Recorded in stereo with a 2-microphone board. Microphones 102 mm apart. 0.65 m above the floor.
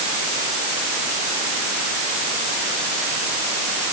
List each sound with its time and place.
Only background noise.